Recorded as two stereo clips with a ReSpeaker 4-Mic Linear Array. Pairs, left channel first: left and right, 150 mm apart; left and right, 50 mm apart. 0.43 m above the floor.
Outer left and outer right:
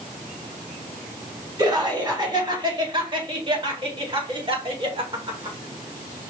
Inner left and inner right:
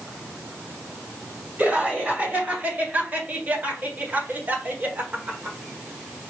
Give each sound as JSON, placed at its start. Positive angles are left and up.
{"t": 1.6, "sound": "laughter", "side_deg": -30, "distance_m": 2.5}